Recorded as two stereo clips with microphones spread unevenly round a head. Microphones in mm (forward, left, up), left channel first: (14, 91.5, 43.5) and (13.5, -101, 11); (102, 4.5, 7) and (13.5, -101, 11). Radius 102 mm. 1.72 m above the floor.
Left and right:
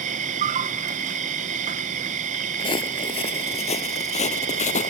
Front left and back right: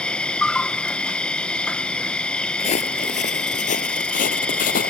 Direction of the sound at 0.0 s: 35° right.